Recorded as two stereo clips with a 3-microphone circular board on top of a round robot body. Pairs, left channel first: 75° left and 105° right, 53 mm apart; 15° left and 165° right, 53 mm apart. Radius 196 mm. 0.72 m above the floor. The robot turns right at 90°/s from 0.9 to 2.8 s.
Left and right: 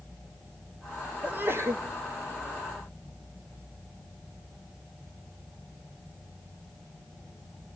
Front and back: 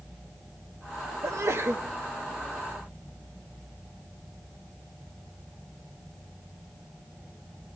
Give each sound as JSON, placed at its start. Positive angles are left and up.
{"t": 1.2, "sound": "a sneeze", "azimuth_deg": -170, "distance_m": 1.5}